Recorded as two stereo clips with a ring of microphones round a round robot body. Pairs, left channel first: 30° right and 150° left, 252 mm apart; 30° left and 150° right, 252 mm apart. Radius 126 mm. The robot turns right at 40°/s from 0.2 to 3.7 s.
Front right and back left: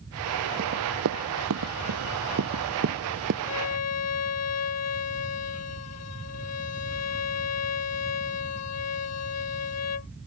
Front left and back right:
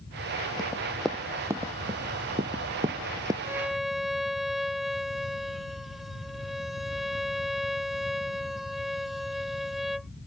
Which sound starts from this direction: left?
Running footsteps, at 0.6 s.